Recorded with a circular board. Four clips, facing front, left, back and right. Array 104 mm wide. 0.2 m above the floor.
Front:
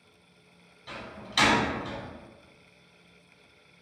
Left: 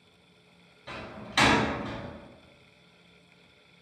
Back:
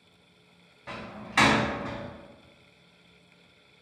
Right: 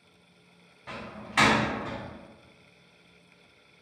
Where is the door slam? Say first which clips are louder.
Right 1 dB, back 2 dB; 155° right, 0.8 m.